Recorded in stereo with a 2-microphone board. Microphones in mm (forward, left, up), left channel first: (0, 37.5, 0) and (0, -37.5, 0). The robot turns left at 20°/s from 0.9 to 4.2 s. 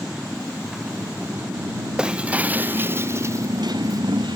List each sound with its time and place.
0.0 s a motorcycle: 5° right; by 4.4 s 75° right
2.0 s breaking glass: 10° right; by 4.0 s 50° right